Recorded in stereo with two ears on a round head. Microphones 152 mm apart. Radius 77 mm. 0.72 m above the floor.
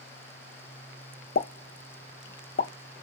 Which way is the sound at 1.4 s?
60° left (ahead or behind).